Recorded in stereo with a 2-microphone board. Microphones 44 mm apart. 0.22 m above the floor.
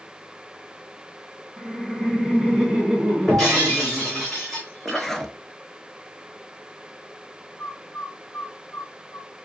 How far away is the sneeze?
No sneeze in this recording.